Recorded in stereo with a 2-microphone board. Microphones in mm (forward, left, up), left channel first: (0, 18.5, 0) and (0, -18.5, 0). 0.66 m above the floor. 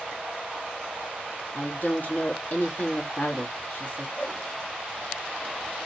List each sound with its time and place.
1.5 s a woman speaking: 45° left (ahead or behind), 1.2 m
4.2 s a whoosh: 60° left (ahead or behind), 1.6 m